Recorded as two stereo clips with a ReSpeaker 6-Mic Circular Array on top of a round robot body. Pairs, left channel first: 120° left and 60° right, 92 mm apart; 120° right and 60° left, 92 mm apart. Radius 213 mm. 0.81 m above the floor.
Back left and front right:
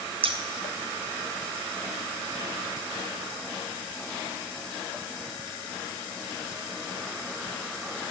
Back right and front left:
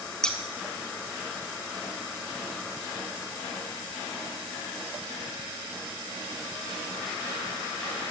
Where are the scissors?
35° right, 0.9 m.